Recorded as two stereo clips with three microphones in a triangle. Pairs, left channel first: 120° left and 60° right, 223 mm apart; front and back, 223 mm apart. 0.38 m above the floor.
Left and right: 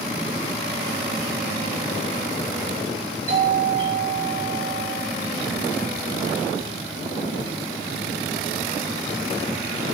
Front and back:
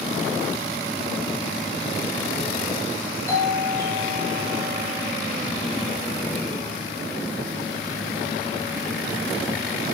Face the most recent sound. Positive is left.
turn(degrees=-75)